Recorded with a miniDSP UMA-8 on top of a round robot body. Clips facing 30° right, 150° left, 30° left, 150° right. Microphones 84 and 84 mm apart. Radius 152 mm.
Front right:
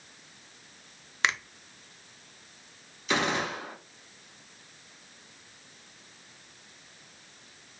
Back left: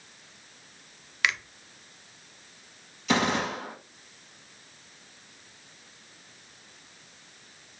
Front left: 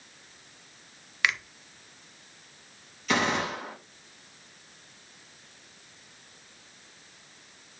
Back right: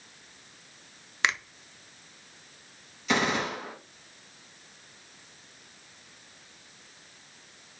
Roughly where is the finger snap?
Right.